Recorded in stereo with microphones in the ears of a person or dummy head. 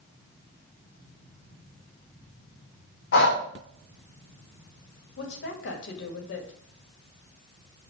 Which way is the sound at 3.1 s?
65° left (ahead or behind).